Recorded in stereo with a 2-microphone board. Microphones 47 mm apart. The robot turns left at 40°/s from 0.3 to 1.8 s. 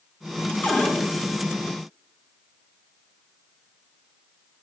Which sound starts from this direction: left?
A cupboard door, at 0.6 s.